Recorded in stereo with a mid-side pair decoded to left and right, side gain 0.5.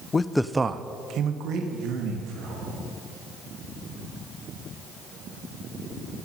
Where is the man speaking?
35° left, 0.6 m; by 2.9 s 80° right, 3 m.